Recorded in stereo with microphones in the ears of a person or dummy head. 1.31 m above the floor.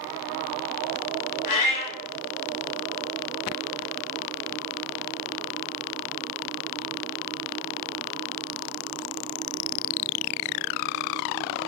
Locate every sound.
1.4 s a cat meowing: 45° left (ahead or behind), 1.6 m